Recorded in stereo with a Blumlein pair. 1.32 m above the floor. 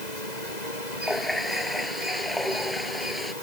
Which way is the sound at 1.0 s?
Straight ahead.